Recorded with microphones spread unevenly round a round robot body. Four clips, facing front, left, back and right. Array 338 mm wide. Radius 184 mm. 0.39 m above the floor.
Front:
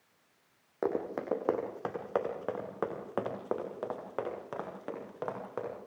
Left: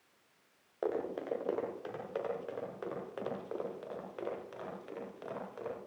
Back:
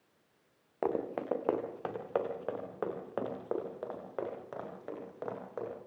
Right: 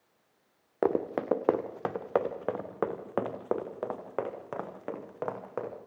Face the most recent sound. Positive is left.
turn(degrees=-60)